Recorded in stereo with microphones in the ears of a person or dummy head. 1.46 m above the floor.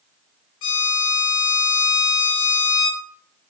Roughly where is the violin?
Left.